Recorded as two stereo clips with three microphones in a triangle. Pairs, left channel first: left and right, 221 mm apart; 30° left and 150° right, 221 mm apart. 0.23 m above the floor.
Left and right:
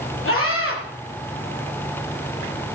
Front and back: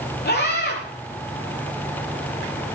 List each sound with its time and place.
0.2 s a scream: 70° left, 5.5 m